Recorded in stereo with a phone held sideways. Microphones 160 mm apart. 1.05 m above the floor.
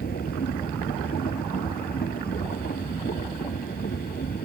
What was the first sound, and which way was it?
A machine running, 70° left (ahead or behind).